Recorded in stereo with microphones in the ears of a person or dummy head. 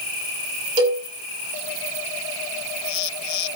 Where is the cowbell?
25° right (ahead or behind), 7 m.